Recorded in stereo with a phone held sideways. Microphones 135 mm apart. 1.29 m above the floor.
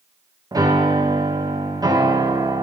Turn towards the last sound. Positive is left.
turn(degrees=-25)  # may be behind; listen again after turning